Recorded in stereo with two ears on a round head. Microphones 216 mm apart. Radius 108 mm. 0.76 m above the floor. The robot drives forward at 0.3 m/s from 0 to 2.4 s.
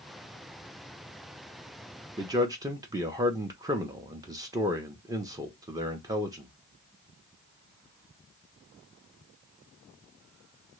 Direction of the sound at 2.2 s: 15° right (ahead or behind).